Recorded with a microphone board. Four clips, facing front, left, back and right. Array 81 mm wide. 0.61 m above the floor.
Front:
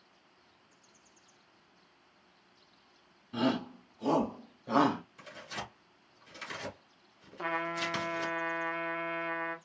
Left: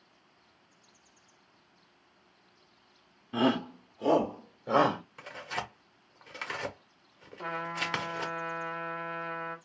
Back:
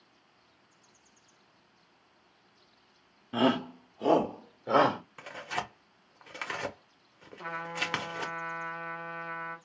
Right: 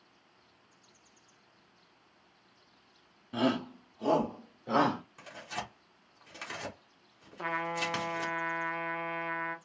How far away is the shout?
About 0.8 m.